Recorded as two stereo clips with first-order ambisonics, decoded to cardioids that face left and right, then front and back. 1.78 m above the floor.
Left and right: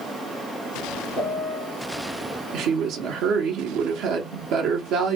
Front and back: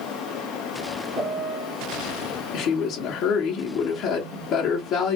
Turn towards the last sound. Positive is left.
turn(degrees=-55)